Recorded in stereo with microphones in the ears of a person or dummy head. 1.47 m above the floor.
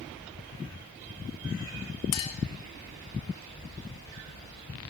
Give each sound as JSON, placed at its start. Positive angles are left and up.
{"t": 2.1, "sound": "a clink", "side_deg": 30, "distance_m": 0.5}